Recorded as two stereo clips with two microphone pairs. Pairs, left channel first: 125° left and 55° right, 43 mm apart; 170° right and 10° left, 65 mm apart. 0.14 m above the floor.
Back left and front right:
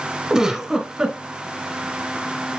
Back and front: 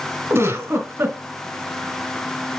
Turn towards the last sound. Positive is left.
turn(degrees=10)